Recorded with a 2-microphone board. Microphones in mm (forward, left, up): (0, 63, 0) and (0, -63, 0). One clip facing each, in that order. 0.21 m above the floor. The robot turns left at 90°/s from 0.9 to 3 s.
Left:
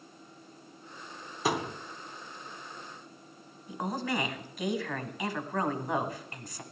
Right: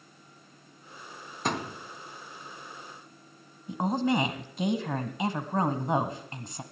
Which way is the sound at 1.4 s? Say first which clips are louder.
Left 1 dB; 5° left (ahead or behind).